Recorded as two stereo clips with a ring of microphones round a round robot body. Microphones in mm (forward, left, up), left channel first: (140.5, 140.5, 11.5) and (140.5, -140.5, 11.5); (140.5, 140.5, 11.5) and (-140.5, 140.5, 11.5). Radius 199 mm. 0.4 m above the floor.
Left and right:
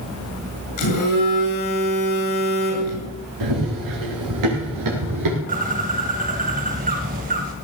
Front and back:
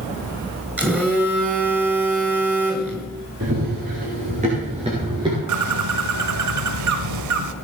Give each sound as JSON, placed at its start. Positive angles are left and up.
{"t": 0.8, "sound": "a phone buzzing", "azimuth_deg": 95, "distance_m": 7.5}
{"t": 3.4, "sound": "running footsteps", "azimuth_deg": -115, "distance_m": 5.5}
{"t": 5.5, "sound": "a bird", "azimuth_deg": -155, "distance_m": 0.8}